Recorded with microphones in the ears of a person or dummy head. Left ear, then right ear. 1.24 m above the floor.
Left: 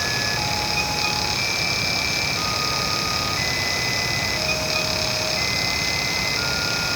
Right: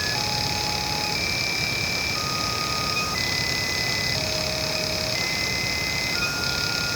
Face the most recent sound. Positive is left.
No sound to turn to.